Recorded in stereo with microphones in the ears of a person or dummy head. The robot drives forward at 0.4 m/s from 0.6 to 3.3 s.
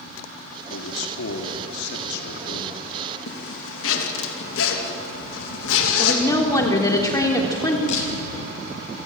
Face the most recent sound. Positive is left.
turn(degrees=45)  # may be behind; listen again after turning